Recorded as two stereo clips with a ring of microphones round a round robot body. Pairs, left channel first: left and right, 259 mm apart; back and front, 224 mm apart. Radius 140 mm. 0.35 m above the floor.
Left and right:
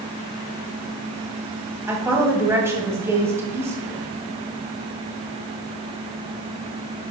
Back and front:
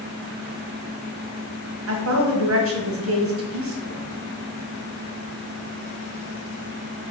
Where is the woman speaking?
10° right, 2 m.